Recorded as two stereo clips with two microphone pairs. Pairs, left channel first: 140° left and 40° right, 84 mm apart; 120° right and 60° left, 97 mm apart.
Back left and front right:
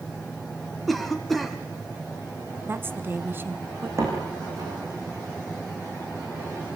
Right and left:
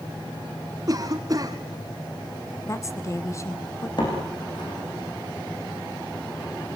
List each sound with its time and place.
0.9 s a cough: 55° left, 1.6 m
2.6 s a woman speaking: 85° right, 1.3 m
4.0 s a door slam: 85° right, 9 m